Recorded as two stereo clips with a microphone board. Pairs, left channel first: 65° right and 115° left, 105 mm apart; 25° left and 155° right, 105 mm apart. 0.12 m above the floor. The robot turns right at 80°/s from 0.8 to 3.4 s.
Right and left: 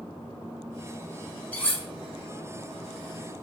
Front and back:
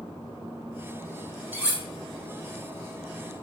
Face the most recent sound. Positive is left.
turn(degrees=30)